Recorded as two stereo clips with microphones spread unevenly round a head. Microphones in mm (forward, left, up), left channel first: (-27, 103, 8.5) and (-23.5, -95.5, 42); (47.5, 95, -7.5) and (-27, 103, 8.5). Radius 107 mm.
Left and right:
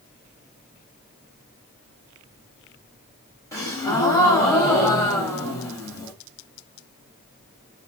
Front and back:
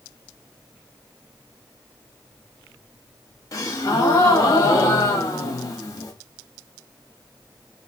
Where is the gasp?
10° left, 0.8 m.